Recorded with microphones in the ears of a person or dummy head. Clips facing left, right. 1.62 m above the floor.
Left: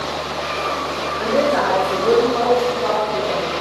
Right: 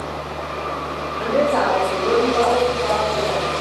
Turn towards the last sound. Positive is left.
turn(degrees=55)  # may be behind; listen again after turning